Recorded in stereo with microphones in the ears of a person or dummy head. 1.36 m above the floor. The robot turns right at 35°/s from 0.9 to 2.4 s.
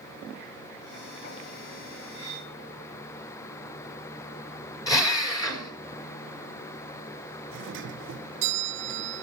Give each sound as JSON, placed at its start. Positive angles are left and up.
{"t": 2.1, "sound": "cutlery clinking", "side_deg": 20, "distance_m": 9.5}
{"t": 4.9, "sound": "a drill", "side_deg": 25, "distance_m": 4.0}
{"t": 7.5, "sound": "a doorbell", "side_deg": -65, "distance_m": 1.1}